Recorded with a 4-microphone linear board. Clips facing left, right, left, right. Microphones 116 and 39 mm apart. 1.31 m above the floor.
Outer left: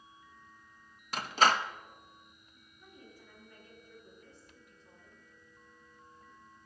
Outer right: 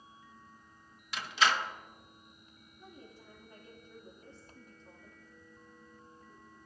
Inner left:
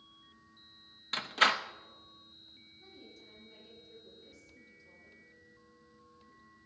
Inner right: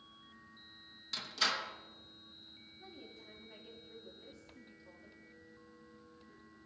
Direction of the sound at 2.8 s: 30° right (ahead or behind).